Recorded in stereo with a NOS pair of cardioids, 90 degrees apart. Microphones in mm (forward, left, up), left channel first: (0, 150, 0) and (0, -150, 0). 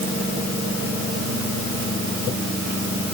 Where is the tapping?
No tapping in this recording.